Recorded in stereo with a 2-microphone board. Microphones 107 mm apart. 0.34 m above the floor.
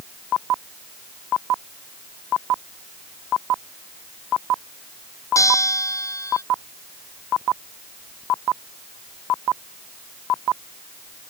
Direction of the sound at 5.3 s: 30° left (ahead or behind).